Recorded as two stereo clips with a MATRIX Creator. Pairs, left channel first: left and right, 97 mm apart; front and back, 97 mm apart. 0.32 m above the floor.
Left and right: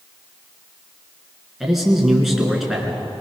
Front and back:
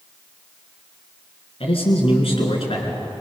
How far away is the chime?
No chime in this recording.